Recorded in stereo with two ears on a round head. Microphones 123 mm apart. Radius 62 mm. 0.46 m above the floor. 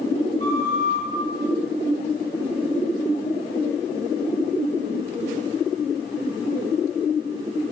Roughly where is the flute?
Left.